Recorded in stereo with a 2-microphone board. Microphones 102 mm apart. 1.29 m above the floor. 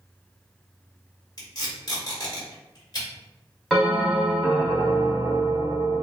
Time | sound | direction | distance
1.4 | tape being pulled | 40° left (ahead or behind) | 1.8 m
3.7 | a bell | centre (ahead or behind) | 1.4 m